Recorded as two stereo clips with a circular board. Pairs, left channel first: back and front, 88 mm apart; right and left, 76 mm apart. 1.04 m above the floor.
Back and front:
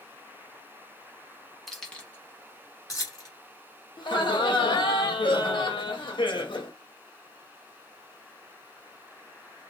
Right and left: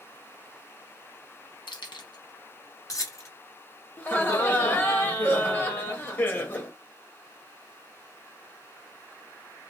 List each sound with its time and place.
1.7 s keys jangling: 95° right, 0.7 m; by 3.3 s 140° right, 1.3 m
4.0 s laughter: 155° right, 1.0 m